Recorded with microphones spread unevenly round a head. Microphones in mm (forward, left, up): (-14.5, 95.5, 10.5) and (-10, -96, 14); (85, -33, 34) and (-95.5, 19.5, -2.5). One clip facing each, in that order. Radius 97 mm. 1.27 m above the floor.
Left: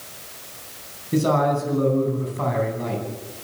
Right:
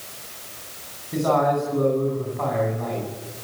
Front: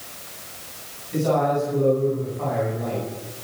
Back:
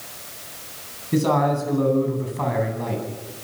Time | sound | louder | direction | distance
1.1 | a man speaking | left 1 dB, back 1 dB | 145° left | 9.5 m